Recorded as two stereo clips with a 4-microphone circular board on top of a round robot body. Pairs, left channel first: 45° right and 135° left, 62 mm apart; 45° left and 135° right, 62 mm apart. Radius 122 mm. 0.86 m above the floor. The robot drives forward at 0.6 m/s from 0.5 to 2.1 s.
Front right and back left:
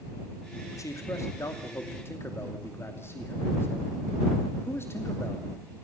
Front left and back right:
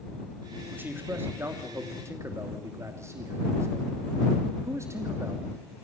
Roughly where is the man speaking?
Right.